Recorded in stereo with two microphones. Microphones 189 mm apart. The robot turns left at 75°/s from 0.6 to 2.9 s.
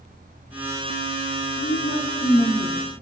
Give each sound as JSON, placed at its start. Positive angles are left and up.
{"t": 1.6, "sound": "a woman speaking", "azimuth_deg": 80, "distance_m": 1.6}